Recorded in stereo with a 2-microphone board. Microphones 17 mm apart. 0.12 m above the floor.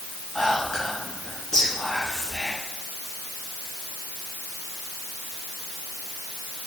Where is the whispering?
25° left (ahead or behind), 1.8 m.